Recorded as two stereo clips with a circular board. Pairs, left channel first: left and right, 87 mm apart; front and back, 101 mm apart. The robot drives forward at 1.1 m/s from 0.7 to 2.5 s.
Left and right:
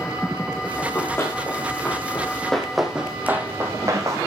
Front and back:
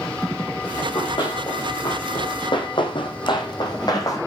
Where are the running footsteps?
30° left, 4.5 m; by 4.2 s 50° right, 3 m.